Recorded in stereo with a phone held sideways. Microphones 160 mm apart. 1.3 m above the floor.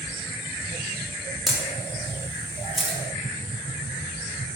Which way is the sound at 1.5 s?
Centre (ahead or behind).